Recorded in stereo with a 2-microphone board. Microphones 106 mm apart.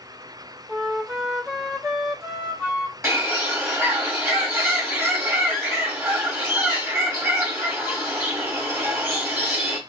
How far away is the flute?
About 0.6 m.